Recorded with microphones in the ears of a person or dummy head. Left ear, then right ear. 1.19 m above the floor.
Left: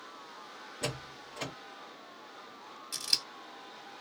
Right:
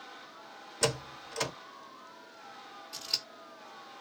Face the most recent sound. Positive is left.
turn(degrees=75)  # may be behind; listen again after turning